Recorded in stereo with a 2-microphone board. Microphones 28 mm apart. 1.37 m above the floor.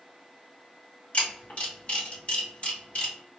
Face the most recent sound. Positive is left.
turn(degrees=50)  # may be behind; listen again after turning